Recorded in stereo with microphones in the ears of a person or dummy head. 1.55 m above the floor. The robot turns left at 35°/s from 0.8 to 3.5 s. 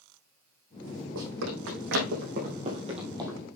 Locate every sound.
1.1 s running footsteps: 70° right (ahead or behind), 6 m; by 3.5 s 10° right (ahead or behind), 3 m